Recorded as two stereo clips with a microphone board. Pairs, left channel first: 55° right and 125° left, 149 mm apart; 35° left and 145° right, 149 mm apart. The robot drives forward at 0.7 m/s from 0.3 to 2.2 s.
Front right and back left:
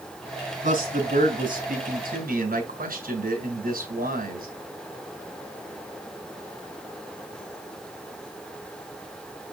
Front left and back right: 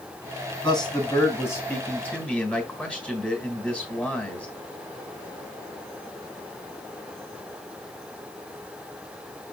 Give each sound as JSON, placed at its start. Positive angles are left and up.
{"t": 0.6, "sound": "a man speaking", "azimuth_deg": 95, "distance_m": 3.0}